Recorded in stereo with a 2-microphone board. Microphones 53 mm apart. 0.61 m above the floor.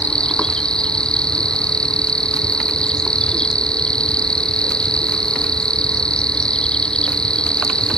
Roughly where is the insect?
Centre.